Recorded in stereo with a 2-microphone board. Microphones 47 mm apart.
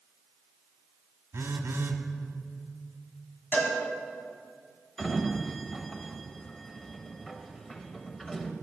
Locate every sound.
1.3 s a phone buzzing: 70° right (ahead or behind), 0.9 m
3.5 s a cowbell: 40° left (ahead or behind), 2 m
5.0 s a sliding door: 5° left (ahead or behind), 0.8 m